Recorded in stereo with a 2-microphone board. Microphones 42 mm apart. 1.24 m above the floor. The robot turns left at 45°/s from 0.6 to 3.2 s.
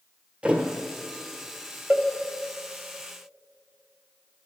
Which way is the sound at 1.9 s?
20° right (ahead or behind).